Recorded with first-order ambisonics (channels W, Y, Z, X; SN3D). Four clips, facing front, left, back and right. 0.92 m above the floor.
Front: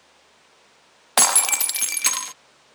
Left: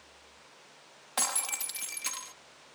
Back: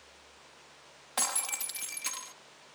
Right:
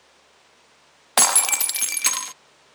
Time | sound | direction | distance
1.2 | breaking glass | 45° right | ?